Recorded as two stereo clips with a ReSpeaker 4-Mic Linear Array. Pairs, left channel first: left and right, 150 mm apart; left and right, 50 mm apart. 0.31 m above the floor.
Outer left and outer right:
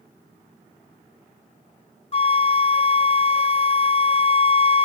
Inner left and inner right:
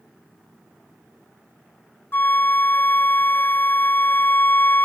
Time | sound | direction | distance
2.1 | a flute | 45° left (ahead or behind) | ?